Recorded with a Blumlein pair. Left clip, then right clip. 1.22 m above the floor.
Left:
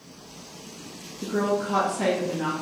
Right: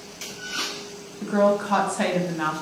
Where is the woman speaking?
40° right, 0.7 m.